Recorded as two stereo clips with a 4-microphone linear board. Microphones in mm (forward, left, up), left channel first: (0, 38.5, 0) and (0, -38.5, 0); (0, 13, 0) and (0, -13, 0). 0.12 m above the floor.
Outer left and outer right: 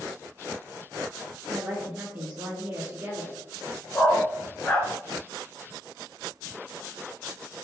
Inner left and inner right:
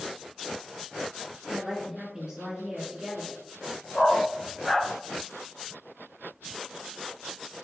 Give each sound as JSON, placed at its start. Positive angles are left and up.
{"t": 1.5, "sound": "a woman speaking", "side_deg": -15, "distance_m": 1.5}
{"t": 3.9, "sound": "a dog barking", "side_deg": 20, "distance_m": 0.7}